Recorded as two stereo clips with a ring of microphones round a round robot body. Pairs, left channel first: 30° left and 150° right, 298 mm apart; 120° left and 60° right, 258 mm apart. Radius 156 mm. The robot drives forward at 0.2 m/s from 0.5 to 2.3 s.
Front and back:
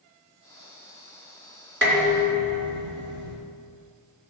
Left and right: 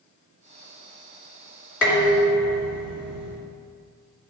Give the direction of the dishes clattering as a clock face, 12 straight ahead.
7 o'clock.